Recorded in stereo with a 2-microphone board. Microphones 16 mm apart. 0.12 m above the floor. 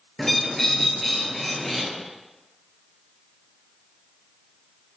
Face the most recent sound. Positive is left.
turn(degrees=20)  # may be behind; listen again after turning